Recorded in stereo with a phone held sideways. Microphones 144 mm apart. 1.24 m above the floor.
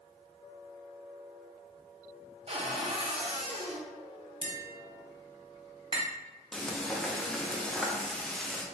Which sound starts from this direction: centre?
Frying, at 6.5 s.